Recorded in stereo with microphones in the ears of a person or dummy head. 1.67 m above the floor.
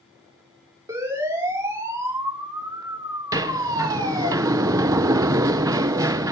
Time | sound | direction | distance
0.9 | a siren | 15° right (ahead or behind) | 7 m
3.3 | a sliding door | 15° right (ahead or behind) | 0.7 m